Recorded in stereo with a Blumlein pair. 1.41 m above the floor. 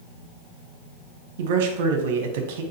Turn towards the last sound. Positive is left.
turn(degrees=-50)